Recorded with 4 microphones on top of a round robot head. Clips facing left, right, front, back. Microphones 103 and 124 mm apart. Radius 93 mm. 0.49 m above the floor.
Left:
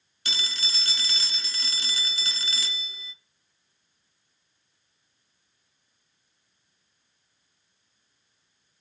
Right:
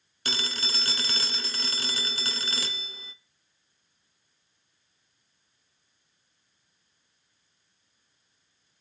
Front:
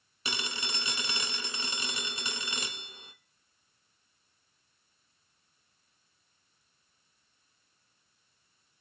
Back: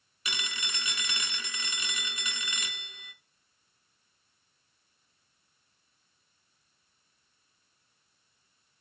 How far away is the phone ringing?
About 0.5 m.